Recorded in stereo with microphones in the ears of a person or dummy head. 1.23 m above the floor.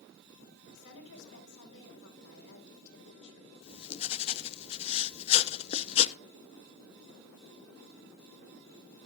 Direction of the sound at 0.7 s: 75° left (ahead or behind).